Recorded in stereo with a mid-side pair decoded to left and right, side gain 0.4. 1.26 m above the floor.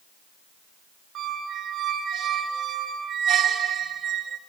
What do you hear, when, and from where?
1.1 s a squeak: 65° right, 2.5 m